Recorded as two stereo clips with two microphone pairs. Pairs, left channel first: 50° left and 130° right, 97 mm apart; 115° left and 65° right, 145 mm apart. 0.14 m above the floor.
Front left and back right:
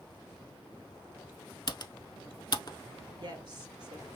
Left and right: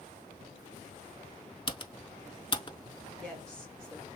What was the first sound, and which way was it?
Typing on a keyboard, 75° left.